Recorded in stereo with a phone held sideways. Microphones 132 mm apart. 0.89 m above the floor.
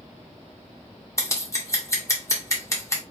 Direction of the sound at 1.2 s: 20° left (ahead or behind).